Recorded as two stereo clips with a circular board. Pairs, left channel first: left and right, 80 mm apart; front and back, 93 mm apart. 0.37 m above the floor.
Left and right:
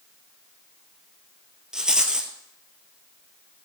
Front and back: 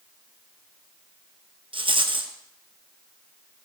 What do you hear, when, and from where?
1.7 s a rattle: 170° right, 1.6 m